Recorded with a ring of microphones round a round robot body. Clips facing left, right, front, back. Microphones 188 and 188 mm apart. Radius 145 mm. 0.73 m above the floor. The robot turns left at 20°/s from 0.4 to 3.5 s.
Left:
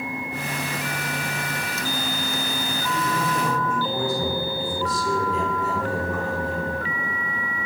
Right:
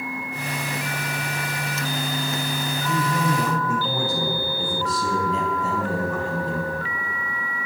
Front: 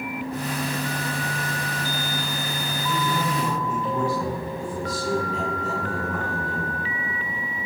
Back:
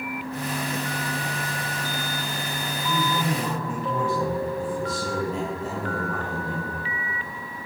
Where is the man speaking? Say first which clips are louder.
Right 3 dB, even; 115° right, 5 m; by 6.7 s 130° right, 5 m.